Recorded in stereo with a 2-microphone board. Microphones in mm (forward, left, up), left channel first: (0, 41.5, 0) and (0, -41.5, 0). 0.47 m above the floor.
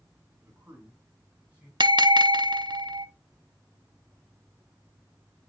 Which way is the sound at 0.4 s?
25° right (ahead or behind).